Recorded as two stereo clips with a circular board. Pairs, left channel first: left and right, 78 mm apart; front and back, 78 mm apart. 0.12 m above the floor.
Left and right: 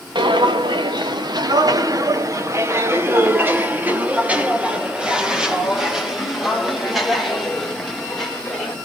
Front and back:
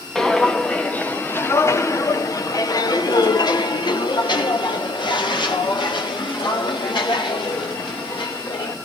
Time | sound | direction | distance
0.1 | footsteps | 85° right | 1.5 m